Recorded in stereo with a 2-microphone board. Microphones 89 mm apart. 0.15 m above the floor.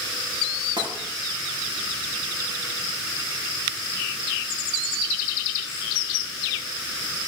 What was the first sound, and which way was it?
Tapping, 55° right (ahead or behind).